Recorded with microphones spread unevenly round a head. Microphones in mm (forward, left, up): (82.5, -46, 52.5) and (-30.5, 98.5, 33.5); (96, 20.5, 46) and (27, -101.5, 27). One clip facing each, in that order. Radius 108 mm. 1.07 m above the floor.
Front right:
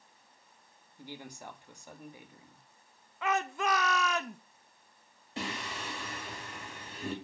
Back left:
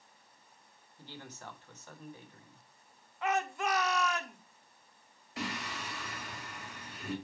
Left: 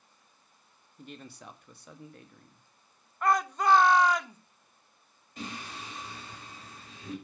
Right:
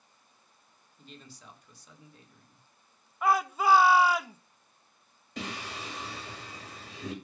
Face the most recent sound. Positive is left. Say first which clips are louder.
# front right 1 dB, right 2 dB
turn(degrees=-120)